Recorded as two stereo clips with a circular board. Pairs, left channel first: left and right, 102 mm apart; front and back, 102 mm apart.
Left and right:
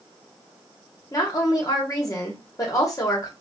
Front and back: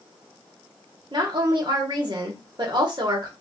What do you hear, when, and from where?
1.1 s a woman speaking: 140° left, 1.5 m